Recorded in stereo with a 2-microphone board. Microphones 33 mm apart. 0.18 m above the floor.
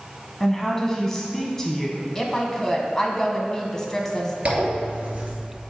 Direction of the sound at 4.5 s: 40° right (ahead or behind).